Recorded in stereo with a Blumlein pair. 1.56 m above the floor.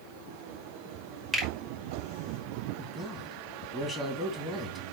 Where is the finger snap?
10° right, 3.5 m.